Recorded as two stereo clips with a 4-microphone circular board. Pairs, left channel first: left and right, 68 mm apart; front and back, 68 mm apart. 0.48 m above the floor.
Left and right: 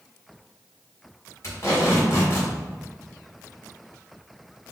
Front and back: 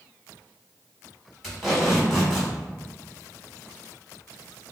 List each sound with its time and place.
1.4 s tape being pulled: 95° left, 1.8 m